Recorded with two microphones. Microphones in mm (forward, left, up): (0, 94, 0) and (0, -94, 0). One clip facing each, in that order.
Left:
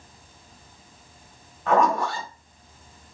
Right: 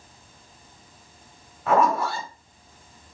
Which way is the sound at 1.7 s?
5° right (ahead or behind).